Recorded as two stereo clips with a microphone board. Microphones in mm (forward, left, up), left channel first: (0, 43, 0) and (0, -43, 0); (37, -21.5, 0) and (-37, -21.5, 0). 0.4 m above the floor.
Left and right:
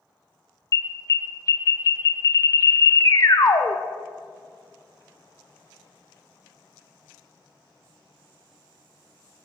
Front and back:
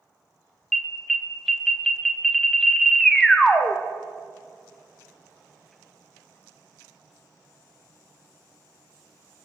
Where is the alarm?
85° left, 0.6 m.